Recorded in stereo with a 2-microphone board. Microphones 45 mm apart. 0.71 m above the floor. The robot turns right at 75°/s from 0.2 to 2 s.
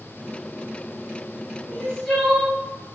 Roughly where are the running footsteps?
I don't hear running footsteps.